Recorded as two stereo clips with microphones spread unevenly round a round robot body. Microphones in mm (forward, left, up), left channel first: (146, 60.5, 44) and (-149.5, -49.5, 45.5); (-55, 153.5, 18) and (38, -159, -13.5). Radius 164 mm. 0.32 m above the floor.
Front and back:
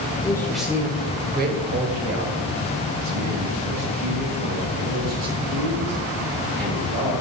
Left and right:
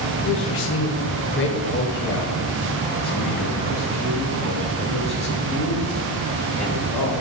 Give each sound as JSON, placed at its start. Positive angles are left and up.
{"t": 0.2, "sound": "a man speaking", "azimuth_deg": 85, "distance_m": 1.1}